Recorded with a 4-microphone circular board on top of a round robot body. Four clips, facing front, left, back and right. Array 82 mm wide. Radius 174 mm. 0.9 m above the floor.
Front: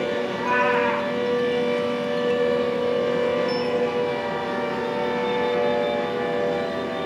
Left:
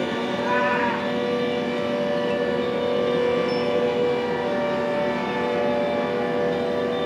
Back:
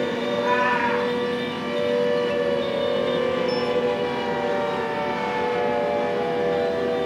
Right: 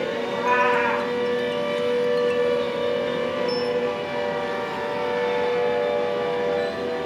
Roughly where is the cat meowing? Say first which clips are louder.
Right 3 dB, back 1 dB; right.